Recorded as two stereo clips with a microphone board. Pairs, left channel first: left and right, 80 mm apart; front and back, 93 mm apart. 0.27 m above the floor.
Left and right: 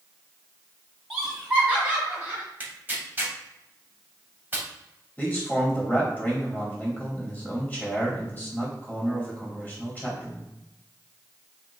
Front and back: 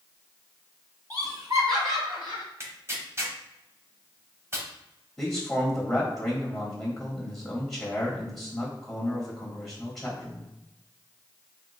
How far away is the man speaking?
About 1.2 m.